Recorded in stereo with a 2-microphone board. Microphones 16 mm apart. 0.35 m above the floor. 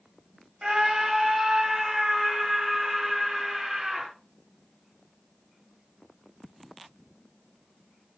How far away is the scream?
About 2 m.